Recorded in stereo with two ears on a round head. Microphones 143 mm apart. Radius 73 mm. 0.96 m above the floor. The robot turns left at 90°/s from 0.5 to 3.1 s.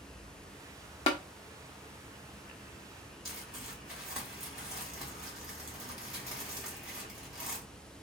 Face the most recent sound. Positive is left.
turn(degrees=-5)  # may be behind; listen again after turning